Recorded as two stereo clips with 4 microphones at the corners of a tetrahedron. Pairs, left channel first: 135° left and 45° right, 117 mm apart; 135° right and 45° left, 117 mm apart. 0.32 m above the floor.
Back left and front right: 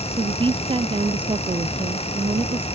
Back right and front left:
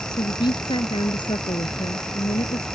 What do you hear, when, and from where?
0.1 s a woman speaking: 90° right